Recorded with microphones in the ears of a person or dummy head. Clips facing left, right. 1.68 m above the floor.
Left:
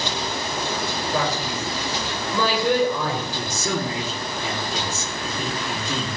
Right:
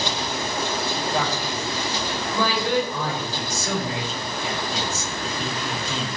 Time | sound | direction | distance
1.1 | a man speaking | 80° left | 7 m
3.4 | a man speaking | 75° left (ahead or behind) | 4 m